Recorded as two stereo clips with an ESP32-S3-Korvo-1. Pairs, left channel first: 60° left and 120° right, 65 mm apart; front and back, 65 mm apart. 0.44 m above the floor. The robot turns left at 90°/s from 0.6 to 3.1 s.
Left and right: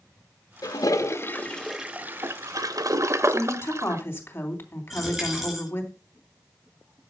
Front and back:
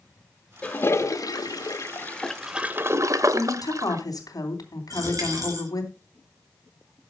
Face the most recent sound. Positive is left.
turn(degrees=155)